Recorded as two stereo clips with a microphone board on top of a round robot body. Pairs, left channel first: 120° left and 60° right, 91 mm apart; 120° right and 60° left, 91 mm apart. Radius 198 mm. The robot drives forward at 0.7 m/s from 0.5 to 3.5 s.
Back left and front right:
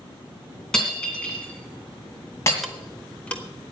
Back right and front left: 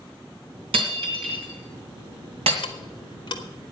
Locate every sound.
0.7 s breaking glass: 35° left, 2.5 m; by 2.5 s 60° left, 1.9 m
2.6 s ticking: 150° right, 0.7 m; by 3.7 s 165° right, 1.3 m